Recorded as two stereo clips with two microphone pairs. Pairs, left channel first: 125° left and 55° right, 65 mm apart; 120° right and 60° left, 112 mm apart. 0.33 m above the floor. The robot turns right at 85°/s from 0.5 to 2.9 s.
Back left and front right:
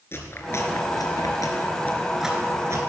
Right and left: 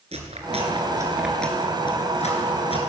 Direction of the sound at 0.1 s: 75° left.